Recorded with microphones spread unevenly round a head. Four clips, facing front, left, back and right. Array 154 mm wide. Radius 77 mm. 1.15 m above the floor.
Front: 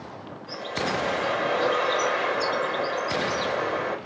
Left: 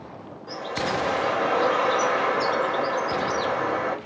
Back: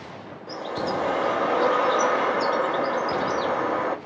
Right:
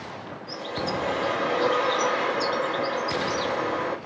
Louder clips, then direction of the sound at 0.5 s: Left 3 dB, back 1 dB; 160° left.